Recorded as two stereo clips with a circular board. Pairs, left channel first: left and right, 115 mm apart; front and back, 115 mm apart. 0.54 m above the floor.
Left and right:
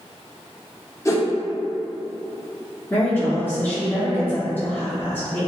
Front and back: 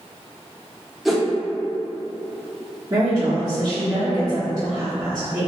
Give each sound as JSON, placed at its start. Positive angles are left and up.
{"t": 1.1, "sound": "a whoosh", "azimuth_deg": 95, "distance_m": 0.6}
{"t": 2.9, "sound": "a woman speaking", "azimuth_deg": 155, "distance_m": 0.8}